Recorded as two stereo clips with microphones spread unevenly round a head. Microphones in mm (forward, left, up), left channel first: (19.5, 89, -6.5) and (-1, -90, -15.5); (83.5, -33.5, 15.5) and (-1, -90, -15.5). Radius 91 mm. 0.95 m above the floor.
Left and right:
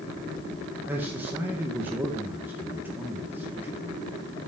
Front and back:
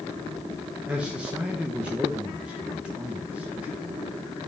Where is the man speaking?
160° right, 0.8 m.